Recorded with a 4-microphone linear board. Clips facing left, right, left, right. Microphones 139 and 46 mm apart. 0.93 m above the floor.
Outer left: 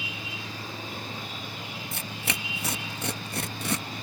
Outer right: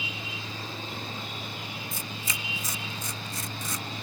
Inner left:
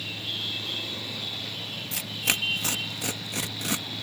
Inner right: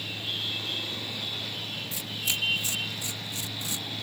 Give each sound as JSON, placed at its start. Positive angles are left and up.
{"t": 1.9, "sound": "tearing paper", "side_deg": 65}